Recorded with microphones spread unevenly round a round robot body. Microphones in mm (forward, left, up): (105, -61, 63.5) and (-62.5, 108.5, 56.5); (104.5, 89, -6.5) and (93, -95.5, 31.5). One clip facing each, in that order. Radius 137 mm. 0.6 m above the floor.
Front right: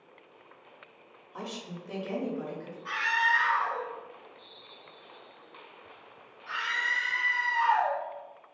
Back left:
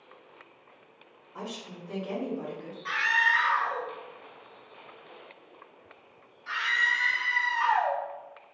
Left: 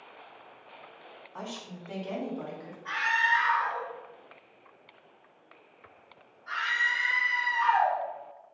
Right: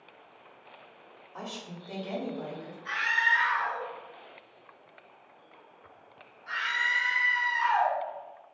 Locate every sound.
1.3 s a woman speaking: 30° right, 1.8 m; by 2.8 s 45° left, 1.3 m
2.9 s a scream: 175° right, 0.8 m